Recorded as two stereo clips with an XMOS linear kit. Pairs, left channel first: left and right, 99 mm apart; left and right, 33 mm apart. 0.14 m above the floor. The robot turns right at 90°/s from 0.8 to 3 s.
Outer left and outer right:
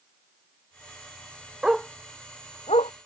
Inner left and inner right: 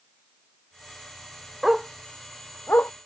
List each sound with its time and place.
1.6 s a dog barking: 10° right (ahead or behind); by 2.9 s 75° left (ahead or behind)